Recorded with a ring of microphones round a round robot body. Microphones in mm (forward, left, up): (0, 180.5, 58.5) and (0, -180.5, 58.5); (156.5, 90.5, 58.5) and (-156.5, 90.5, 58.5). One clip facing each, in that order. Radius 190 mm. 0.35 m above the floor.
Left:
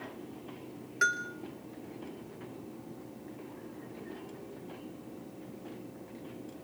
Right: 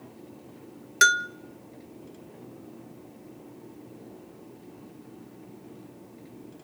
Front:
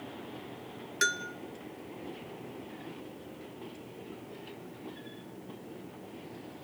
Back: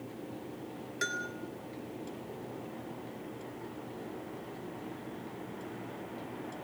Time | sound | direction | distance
1.0 | a bell | 65° right | 0.6 m